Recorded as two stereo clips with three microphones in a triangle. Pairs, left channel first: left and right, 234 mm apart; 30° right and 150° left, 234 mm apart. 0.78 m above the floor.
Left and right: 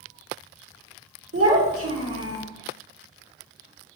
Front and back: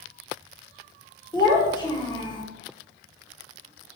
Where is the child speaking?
105° right, 1.3 m.